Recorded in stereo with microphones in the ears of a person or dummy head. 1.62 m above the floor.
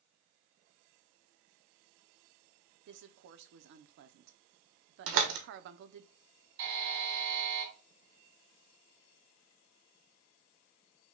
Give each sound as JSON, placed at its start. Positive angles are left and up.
{"t": 2.9, "sound": "a woman speaking", "side_deg": -60, "distance_m": 0.6}
{"t": 5.1, "sound": "a door slam", "side_deg": -70, "distance_m": 1.2}
{"t": 6.6, "sound": "a buzzer", "side_deg": -60, "distance_m": 3.0}